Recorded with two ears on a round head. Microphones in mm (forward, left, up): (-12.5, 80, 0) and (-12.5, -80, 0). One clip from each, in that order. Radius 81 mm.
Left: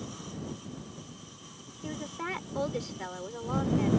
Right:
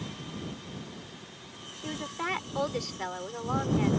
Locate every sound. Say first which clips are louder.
1.8 s a woman speaking: right 3 dB; 35° right (ahead or behind)